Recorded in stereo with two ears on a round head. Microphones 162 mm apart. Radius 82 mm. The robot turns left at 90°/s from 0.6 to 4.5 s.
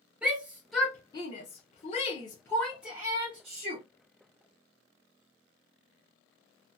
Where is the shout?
5° right (ahead or behind), 0.8 m; by 3.8 s 35° right (ahead or behind), 0.8 m.